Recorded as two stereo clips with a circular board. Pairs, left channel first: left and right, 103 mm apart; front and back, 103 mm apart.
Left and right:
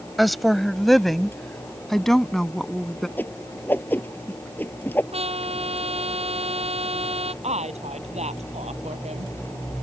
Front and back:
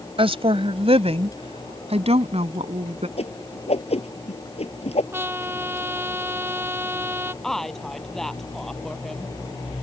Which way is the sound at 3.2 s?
20° left.